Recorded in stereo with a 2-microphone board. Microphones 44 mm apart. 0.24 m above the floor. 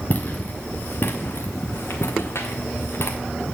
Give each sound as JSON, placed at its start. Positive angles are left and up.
{"t": 0.1, "sound": "footsteps", "side_deg": 45, "distance_m": 1.7}